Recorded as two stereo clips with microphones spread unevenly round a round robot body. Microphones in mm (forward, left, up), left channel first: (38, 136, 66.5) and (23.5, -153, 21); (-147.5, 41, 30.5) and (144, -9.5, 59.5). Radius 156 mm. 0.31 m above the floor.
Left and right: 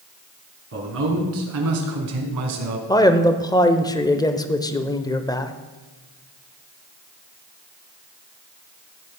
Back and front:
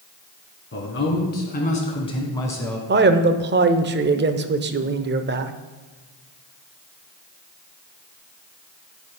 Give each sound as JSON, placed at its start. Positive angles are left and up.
{"t": 0.7, "sound": "a man speaking", "azimuth_deg": -140, "distance_m": 3.5}
{"t": 2.9, "sound": "a man speaking", "azimuth_deg": 5, "distance_m": 0.9}